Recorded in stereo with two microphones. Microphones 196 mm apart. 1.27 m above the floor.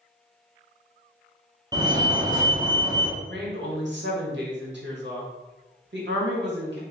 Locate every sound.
1.7 s a fire alarm: 20° right (ahead or behind), 0.8 m
3.2 s a woman speaking: 65° right (ahead or behind), 1.2 m